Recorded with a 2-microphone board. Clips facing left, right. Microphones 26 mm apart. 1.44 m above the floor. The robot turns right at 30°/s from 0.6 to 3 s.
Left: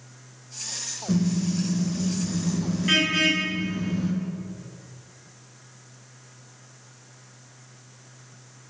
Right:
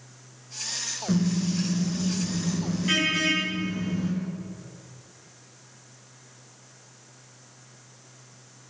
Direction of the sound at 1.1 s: 40° right.